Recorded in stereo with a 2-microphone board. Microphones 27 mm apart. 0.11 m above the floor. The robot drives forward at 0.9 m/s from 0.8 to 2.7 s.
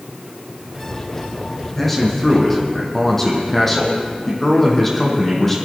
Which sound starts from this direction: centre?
A man speaking, at 1.8 s.